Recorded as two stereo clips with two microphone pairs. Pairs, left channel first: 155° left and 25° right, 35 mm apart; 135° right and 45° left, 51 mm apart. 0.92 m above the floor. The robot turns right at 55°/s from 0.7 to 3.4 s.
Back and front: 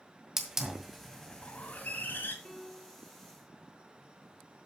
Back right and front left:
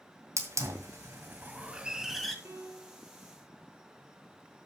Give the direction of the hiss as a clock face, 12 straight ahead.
10 o'clock.